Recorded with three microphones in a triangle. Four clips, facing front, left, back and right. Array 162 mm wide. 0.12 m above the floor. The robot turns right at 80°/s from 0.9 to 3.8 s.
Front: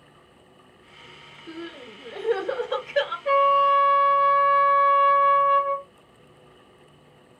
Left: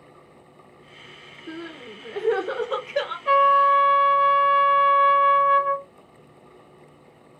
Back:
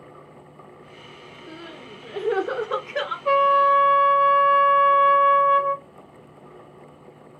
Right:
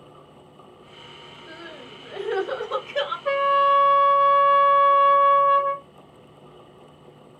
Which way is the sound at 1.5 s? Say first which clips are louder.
Left 6 dB, front 3 dB; 70° left.